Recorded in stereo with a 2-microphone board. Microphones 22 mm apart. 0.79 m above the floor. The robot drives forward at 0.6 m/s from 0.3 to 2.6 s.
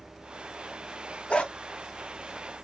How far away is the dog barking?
About 1.5 m.